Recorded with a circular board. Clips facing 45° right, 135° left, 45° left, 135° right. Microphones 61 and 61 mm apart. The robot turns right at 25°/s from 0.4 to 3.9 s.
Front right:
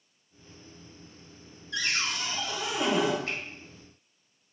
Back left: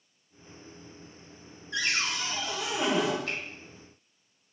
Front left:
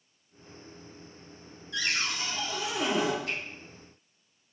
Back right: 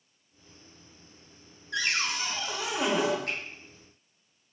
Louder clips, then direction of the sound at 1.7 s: Back left 1 dB, back right 2 dB; 165° right.